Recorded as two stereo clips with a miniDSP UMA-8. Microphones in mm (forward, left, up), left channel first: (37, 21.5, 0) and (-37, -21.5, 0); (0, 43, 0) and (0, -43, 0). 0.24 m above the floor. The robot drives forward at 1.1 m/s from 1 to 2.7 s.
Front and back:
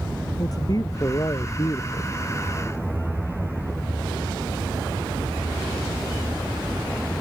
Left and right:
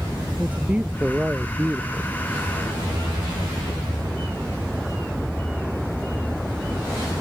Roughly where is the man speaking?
Ahead.